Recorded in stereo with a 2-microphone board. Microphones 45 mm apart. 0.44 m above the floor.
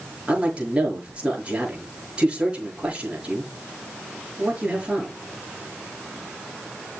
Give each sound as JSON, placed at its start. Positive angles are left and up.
{"t": 0.3, "sound": "a man speaking", "side_deg": -25, "distance_m": 7.0}